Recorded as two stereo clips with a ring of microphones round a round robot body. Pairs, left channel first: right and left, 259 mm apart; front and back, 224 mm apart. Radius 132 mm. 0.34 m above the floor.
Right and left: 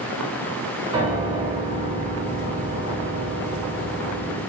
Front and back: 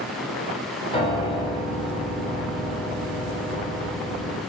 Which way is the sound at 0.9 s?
35° left.